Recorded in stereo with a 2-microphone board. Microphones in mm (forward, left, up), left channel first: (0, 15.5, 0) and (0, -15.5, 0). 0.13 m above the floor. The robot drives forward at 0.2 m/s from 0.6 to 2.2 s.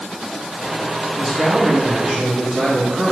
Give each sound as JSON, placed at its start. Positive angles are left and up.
{"t": 1.1, "sound": "a man speaking", "side_deg": -30, "distance_m": 1.4}